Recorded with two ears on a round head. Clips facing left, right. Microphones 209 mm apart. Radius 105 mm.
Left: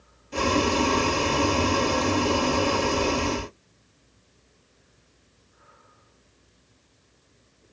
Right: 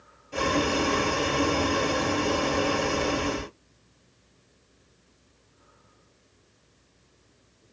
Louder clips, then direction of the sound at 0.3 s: Left 2 dB; 15° left (ahead or behind).